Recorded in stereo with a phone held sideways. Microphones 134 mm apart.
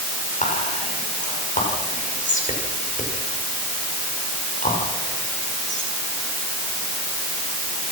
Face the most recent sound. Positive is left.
turn(degrees=70)  # may be behind; listen again after turning